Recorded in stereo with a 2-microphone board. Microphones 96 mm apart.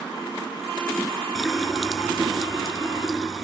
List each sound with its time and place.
1.4 s a running tap: centre (ahead or behind), 1.8 m